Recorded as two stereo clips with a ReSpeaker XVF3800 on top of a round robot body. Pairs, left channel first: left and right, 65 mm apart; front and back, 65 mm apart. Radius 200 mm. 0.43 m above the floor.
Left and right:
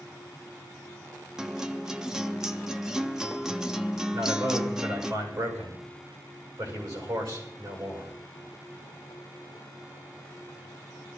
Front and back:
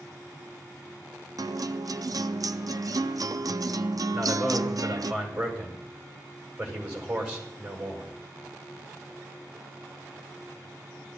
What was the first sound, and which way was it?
A guitar, 170° right.